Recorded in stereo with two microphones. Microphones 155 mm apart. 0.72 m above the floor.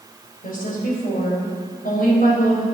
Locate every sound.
0.4 s a woman speaking: 65° left (ahead or behind), 4 m